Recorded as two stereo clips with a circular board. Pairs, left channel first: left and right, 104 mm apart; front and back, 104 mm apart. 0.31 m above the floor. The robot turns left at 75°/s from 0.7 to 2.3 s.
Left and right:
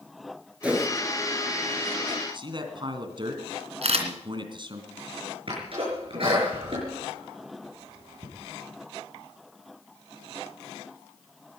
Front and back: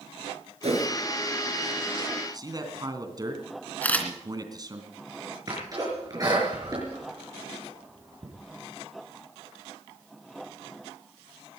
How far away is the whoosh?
About 4 m.